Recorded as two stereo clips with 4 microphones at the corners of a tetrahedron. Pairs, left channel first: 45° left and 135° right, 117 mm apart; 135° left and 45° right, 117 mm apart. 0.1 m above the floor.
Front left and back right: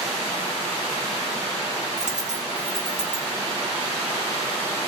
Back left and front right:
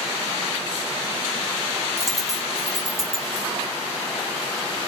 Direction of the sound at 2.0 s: 130° right.